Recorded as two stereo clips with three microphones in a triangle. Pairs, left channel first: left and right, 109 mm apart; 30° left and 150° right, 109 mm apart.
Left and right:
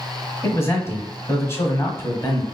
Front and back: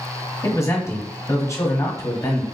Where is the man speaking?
50° left, 1.2 m.